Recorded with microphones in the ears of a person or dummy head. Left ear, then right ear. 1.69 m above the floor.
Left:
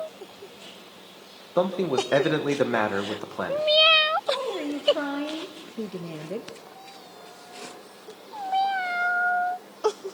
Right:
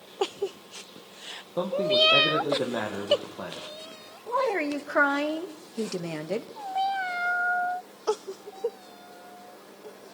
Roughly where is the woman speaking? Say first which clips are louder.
Right 1 dB; right.